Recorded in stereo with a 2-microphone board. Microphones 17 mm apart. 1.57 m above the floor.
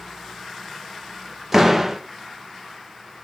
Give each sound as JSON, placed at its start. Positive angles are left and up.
{"t": 1.5, "sound": "a door slam", "side_deg": -10, "distance_m": 1.1}